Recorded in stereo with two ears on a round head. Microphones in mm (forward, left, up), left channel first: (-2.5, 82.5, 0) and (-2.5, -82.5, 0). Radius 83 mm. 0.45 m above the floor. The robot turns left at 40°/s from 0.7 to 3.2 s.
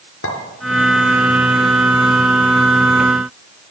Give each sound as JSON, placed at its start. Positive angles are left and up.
{"t": 0.2, "sound": "a clink", "side_deg": 70, "distance_m": 4.5}